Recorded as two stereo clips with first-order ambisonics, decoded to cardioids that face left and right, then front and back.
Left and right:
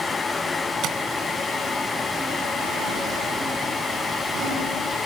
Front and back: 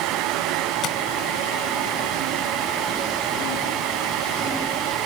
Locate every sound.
0.8 s tapping: 45° right, 2 m